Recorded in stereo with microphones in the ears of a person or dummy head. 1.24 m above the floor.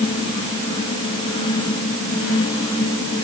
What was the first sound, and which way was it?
Only background noise.